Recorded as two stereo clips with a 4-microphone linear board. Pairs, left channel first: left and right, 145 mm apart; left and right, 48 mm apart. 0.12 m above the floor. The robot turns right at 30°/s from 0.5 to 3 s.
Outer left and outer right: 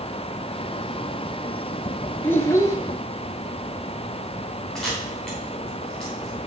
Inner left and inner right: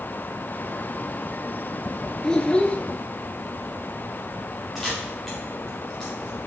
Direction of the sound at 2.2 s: 15° left (ahead or behind).